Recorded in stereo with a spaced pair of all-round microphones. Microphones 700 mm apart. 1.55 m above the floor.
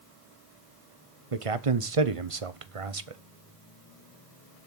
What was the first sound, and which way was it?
A man speaking, 50° right (ahead or behind).